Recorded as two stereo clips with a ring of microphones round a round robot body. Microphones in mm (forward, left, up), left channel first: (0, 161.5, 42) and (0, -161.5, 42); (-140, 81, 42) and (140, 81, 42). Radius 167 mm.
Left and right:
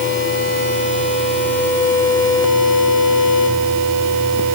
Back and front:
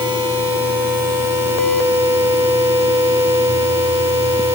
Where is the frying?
I don't hear frying.